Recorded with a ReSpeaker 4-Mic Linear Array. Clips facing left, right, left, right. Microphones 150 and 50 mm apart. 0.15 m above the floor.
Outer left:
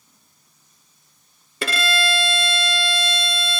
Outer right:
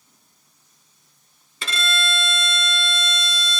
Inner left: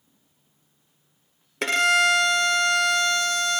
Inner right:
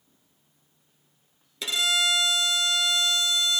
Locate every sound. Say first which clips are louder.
1.6 s a violin: outer left 5 dB, inner left 7 dB; 65° left (ahead or behind), 0.6 m